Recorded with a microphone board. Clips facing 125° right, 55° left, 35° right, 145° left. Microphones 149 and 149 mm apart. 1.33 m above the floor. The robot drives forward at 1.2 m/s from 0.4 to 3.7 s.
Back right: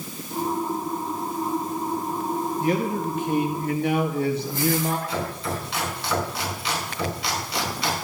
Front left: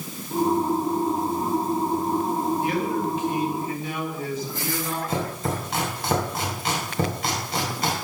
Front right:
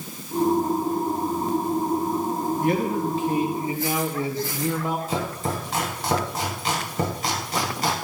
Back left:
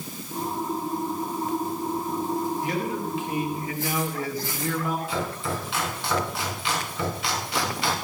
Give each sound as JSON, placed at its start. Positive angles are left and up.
{"t": 2.6, "sound": "a man speaking", "azimuth_deg": -70, "distance_m": 2.5}
{"t": 5.1, "sound": "chopping", "azimuth_deg": 15, "distance_m": 4.5}